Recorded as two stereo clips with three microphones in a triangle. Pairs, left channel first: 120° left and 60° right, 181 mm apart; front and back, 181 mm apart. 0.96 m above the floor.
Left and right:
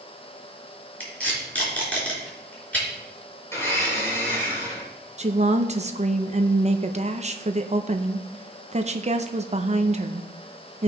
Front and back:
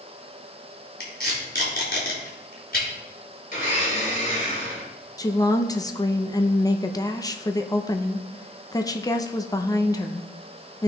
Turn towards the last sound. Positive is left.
turn(degrees=-55)